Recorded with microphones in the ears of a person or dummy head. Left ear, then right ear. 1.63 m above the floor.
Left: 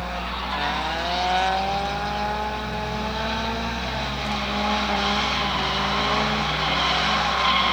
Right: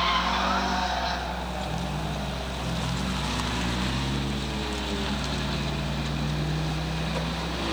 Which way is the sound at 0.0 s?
40° left (ahead or behind).